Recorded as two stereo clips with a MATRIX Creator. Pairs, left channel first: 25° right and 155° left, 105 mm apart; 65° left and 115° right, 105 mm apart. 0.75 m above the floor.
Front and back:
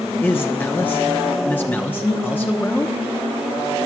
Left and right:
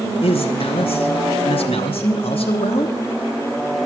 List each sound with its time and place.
0.2 s a man speaking: 50° left, 0.9 m